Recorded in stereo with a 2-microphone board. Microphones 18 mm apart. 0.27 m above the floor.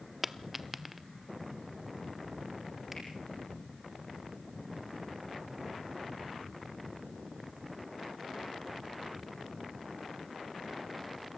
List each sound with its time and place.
0.2 s a dropped coin: 10° right (ahead or behind), 0.6 m
2.9 s a finger snap: 10° right (ahead or behind), 7.5 m